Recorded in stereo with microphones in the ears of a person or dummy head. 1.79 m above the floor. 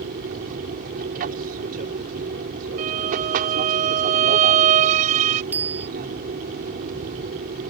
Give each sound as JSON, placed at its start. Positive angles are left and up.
{"t": 0.0, "sound": "an aircraft", "side_deg": -45}
{"t": 2.8, "sound": "a violin", "side_deg": -40}
{"t": 5.5, "sound": "a bicycle bell", "side_deg": -10}